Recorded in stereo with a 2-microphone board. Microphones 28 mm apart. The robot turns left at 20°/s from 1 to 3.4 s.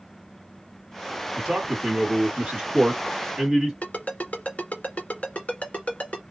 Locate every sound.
1.4 s a man speaking: 115° right, 1.2 m; by 3.7 s 155° right, 1.2 m
3.8 s a ringtone: 60° left (ahead or behind), 1.4 m